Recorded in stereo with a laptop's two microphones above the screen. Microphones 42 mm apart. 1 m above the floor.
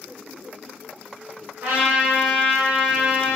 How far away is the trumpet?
About 1.0 m.